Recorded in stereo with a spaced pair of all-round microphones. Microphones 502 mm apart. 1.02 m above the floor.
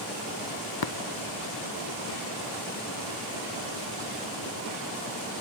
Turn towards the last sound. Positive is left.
turn(degrees=50)  # may be behind; listen again after turning